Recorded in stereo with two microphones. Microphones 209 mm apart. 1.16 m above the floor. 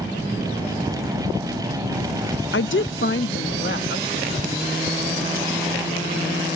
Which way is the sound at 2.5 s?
70° left (ahead or behind).